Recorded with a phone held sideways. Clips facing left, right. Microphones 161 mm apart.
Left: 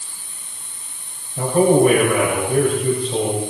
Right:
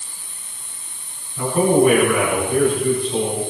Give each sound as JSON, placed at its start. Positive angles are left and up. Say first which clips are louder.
{"t": 1.4, "sound": "a man speaking", "louder": "left 2 dB", "side_deg": 45, "distance_m": 7.5}